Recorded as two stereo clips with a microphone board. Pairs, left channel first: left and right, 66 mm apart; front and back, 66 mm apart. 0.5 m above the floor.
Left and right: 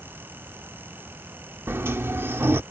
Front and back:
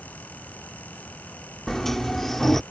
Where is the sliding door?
80° right.